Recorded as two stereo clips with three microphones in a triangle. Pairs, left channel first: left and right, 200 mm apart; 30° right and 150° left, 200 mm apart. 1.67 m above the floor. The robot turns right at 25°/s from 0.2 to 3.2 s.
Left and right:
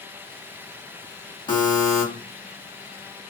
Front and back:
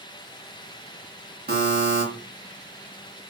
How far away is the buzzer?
About 1.2 m.